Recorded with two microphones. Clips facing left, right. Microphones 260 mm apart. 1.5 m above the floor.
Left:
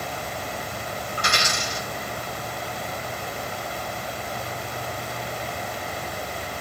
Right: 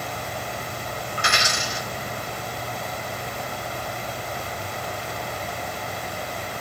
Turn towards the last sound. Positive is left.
turn(degrees=45)  # may be behind; listen again after turning